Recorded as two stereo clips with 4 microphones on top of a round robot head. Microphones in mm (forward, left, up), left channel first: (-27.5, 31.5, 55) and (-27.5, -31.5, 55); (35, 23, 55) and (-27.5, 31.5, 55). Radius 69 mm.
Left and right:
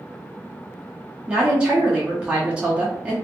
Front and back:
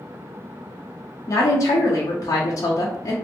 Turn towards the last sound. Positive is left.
turn(degrees=-20)